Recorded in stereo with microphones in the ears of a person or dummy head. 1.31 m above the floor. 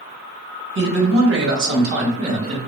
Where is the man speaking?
65° right (ahead or behind), 1.6 m; by 2.6 s 25° right (ahead or behind), 1.2 m.